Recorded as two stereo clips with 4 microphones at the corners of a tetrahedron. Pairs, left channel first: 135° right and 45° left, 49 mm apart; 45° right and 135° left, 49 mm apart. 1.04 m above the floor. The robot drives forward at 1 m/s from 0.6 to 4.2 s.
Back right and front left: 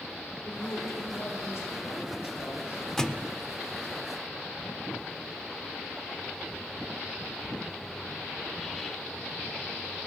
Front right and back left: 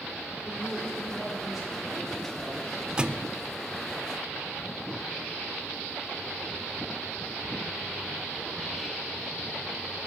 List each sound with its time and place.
0.5 s a woman speaking: 130° right, 5 m; by 2.8 s 145° right, 6.5 m
3.0 s a thud: 165° left, 0.6 m; by 3.3 s 175° left, 0.8 m